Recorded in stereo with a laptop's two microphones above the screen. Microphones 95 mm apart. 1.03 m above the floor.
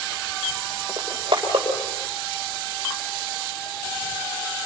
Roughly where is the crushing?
Right.